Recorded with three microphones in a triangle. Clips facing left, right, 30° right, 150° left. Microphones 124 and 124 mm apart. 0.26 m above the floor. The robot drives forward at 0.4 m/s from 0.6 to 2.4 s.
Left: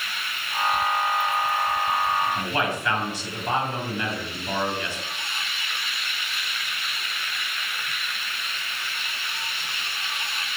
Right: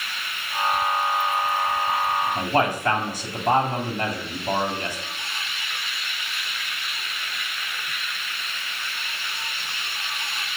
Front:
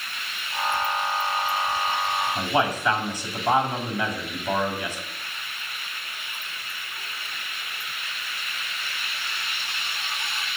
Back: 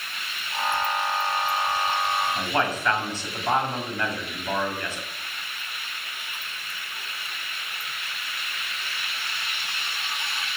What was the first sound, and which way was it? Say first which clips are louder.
A man speaking: right 4 dB, front 2 dB; 100° right.